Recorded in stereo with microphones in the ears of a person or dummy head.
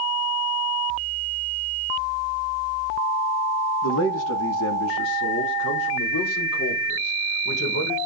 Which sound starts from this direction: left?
A man speaking, at 3.8 s.